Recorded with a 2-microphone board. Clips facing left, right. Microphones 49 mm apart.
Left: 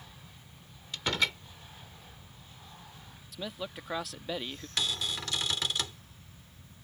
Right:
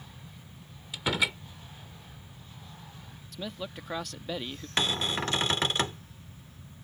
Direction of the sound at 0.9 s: 10° right (ahead or behind).